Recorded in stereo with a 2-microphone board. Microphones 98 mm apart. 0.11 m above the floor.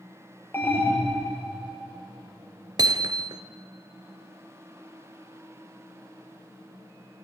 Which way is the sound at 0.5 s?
20° left (ahead or behind).